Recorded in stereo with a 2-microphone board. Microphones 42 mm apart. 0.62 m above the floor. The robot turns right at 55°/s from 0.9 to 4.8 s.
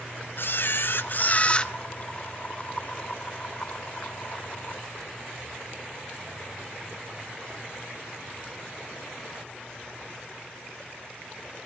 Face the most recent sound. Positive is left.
turn(degrees=-30)